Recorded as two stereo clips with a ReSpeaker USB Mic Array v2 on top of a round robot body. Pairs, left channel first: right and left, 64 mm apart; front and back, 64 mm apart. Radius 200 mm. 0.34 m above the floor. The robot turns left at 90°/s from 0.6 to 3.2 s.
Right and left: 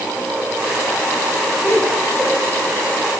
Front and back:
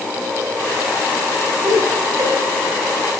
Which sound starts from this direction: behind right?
Laughter, at 1.6 s.